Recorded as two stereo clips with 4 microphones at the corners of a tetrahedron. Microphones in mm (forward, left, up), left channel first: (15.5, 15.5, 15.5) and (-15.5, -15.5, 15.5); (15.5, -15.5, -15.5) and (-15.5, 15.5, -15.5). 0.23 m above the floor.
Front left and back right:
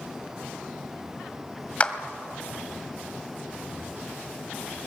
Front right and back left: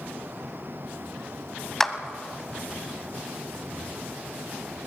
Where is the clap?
35° left, 1.4 m.